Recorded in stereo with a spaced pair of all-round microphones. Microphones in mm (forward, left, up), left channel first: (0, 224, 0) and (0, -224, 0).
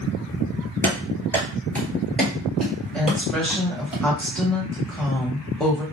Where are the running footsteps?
5° left (ahead or behind), 1.5 m; by 3.9 s centre (ahead or behind), 2.5 m.